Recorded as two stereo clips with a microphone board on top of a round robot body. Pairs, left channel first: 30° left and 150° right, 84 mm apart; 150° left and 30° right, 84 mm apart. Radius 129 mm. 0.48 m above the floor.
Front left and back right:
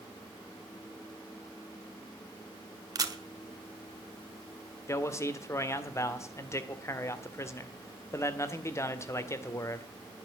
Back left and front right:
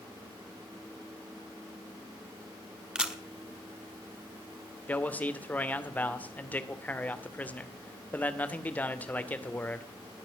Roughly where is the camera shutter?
Right.